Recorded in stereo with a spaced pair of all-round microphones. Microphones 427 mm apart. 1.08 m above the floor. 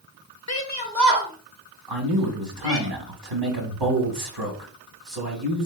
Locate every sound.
0.5 s a shout: 40° left (ahead or behind), 0.6 m; by 2.9 s 30° right (ahead or behind), 2.5 m
1.9 s a man speaking: 65° right (ahead or behind), 1.3 m